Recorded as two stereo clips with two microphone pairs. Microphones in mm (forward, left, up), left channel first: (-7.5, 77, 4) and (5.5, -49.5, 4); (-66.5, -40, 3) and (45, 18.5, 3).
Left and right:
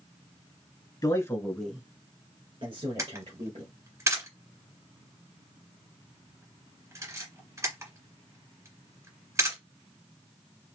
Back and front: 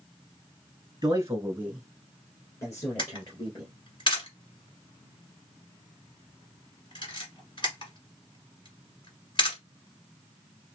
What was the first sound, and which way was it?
A man speaking, 65° left.